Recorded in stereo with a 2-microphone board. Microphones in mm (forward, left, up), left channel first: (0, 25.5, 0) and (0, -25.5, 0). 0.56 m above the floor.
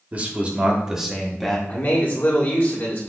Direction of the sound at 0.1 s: 35° right (ahead or behind).